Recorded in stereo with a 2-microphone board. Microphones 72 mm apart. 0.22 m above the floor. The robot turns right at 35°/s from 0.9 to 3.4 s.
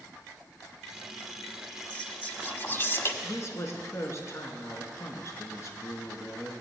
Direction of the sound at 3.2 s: 45° left (ahead or behind).